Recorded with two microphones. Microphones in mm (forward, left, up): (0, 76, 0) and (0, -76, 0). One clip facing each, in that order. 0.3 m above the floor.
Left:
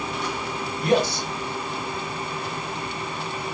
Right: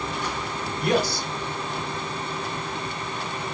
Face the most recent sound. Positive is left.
turn(degrees=20)  # may be behind; listen again after turning